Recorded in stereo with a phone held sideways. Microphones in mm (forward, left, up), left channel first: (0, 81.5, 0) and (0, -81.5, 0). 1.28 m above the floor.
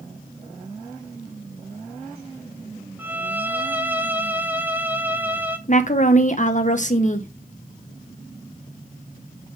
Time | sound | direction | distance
3.0 | a violin | 10° right (ahead or behind) | 0.9 m
5.7 | a woman speaking | 50° left (ahead or behind) | 0.9 m